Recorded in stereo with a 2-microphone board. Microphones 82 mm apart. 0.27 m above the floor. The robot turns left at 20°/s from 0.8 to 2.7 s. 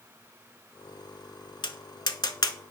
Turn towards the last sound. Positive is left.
turn(degrees=55)  # may be behind; listen again after turning